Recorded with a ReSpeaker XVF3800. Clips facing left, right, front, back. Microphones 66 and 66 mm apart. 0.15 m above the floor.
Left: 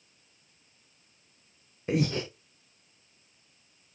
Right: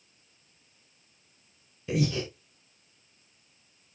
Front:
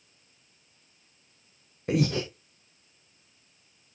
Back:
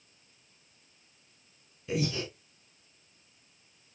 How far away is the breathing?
About 4 m.